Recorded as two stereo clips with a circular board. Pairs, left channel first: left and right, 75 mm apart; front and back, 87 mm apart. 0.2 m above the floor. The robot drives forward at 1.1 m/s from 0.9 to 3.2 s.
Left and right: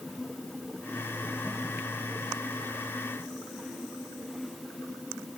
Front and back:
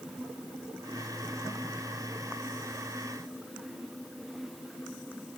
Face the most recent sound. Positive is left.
No sound to turn to.